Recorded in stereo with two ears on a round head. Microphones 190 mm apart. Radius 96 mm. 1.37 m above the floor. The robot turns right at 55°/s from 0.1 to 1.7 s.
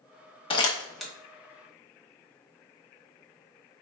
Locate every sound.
0.5 s crumpling: 25° left (ahead or behind), 1.0 m; by 1.1 s 5° right (ahead or behind), 1.0 m